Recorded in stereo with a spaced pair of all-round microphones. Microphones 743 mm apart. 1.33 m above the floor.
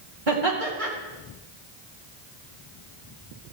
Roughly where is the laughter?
Right.